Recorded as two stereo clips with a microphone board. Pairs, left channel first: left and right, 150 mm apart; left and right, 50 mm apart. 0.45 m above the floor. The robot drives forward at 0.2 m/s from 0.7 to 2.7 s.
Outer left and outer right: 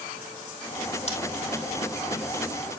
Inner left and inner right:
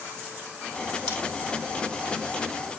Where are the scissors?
45° left (ahead or behind), 2.5 m.